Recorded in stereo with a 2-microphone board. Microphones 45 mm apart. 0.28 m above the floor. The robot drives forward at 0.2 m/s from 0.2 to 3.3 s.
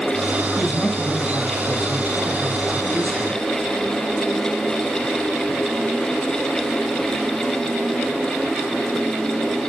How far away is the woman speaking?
About 5 m.